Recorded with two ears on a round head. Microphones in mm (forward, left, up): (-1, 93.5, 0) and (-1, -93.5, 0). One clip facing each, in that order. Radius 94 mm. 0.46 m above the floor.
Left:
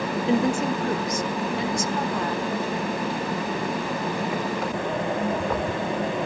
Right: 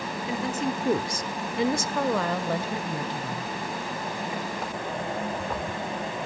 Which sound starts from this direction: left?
A woman speaking, at 0.3 s.